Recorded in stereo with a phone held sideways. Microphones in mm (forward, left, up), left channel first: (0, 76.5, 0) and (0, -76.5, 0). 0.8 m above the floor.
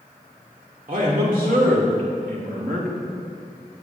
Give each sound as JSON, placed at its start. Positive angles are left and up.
{"t": 0.9, "sound": "a man speaking", "side_deg": -65, "distance_m": 2.5}